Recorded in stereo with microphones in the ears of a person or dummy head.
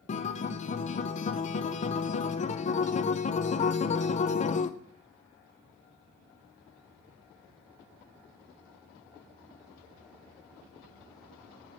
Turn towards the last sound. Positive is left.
turn(degrees=35)  # may be behind; listen again after turning